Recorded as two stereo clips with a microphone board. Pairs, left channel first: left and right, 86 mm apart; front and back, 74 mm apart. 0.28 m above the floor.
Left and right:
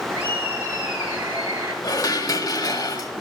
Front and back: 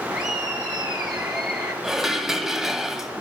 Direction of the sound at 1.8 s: 95° left.